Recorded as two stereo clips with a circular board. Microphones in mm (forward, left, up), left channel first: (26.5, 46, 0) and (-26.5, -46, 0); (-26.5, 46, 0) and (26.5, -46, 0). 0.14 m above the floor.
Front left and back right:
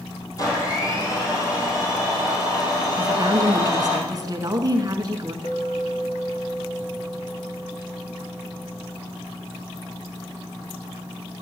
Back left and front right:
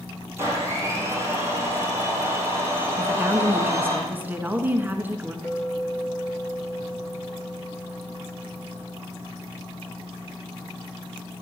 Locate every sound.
0.4 s a blender: 5° left, 4 m
3.0 s a woman speaking: 120° right, 1.5 m
5.4 s a clink: 45° left, 2 m